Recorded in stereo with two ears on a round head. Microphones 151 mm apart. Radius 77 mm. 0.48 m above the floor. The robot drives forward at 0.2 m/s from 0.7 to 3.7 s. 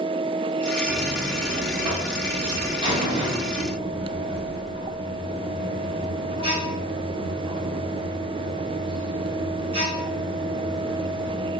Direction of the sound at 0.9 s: 25° right (ahead or behind).